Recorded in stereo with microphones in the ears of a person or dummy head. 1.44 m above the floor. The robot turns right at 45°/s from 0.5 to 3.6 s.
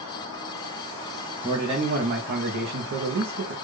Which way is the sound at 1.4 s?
155° right.